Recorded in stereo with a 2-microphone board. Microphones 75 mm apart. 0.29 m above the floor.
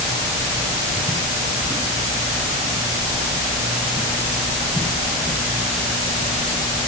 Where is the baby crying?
No baby crying in this recording.